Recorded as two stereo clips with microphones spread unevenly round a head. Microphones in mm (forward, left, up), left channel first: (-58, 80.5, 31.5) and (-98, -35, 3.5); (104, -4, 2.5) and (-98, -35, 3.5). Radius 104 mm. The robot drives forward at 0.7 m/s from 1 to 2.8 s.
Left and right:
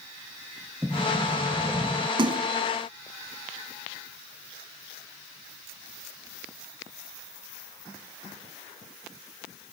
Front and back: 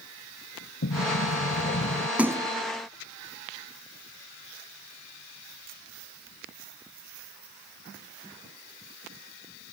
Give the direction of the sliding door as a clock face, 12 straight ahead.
1 o'clock.